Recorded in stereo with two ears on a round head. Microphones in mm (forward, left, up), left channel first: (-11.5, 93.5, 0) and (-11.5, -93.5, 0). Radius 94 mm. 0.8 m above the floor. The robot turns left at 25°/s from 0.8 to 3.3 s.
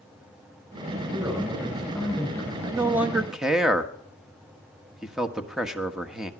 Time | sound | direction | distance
1.1 | a man speaking | 160° right | 4 m
2.6 | a man speaking | 15° right (ahead or behind) | 1.3 m